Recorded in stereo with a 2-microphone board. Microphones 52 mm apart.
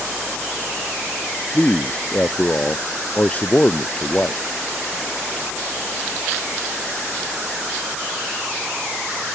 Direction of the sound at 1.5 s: 30° left (ahead or behind).